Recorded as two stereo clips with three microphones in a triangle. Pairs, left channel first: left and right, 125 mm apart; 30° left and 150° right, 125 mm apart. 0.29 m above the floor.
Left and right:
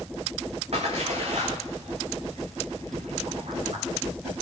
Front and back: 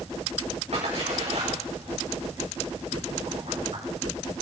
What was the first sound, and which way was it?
A splash, 120° right.